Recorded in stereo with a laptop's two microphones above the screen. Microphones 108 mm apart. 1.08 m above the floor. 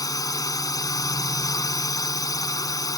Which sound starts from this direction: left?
A drone, at 0.0 s.